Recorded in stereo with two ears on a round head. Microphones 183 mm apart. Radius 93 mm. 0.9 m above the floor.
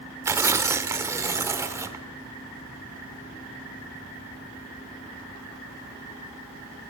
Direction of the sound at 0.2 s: 15° right (ahead or behind).